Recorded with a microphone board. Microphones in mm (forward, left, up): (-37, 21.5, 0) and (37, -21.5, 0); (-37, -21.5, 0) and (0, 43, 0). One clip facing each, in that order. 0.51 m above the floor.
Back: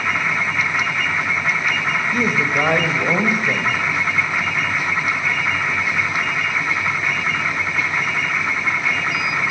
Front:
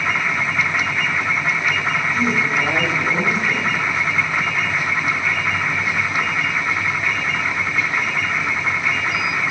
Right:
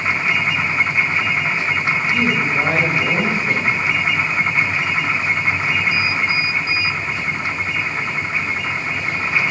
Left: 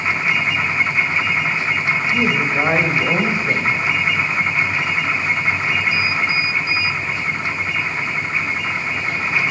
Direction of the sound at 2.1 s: 125° left.